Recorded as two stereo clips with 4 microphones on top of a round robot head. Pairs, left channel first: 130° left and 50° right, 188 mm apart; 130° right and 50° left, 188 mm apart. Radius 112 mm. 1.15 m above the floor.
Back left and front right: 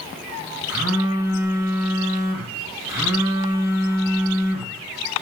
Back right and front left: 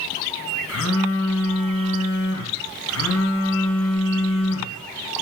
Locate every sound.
0.7 s a phone buzzing: 125° right, 2 m